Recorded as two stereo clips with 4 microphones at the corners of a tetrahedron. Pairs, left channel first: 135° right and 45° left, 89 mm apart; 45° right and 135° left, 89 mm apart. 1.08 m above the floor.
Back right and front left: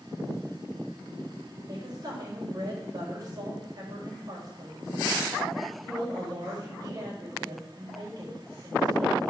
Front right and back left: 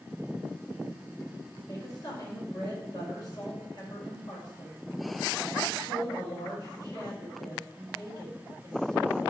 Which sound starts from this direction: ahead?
A woman speaking, at 1.7 s.